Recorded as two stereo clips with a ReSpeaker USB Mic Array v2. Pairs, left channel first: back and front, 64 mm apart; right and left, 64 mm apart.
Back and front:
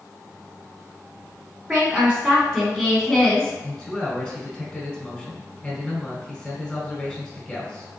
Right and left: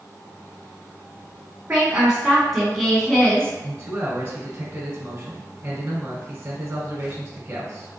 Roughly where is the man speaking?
Left.